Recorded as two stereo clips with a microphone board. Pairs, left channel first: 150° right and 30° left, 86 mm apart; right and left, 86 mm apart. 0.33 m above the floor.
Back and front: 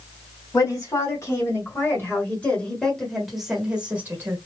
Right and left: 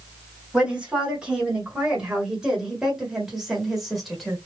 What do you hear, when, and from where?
0.5 s a woman speaking: 165° left, 2.5 m; by 4.4 s straight ahead, 1.5 m